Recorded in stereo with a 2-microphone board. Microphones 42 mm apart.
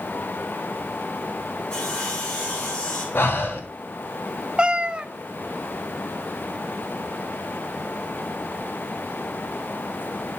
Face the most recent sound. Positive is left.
turn(degrees=-25)  # may be behind; listen again after turning